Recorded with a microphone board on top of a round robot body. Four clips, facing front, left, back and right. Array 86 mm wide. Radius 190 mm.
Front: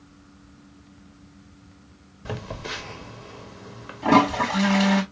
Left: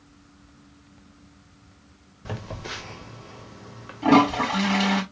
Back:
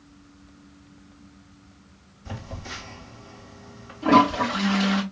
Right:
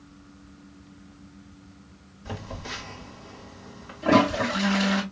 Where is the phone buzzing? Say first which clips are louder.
Left 1 dB, front 5 dB; 30° left, 1.3 m.